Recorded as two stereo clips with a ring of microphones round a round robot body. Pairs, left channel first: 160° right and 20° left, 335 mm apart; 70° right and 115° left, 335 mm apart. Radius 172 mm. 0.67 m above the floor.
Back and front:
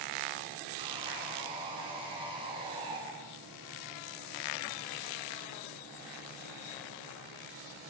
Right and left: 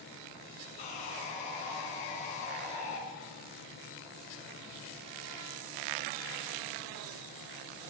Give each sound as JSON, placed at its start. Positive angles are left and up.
{"t": 0.8, "sound": "sawing", "azimuth_deg": -55, "distance_m": 3.0}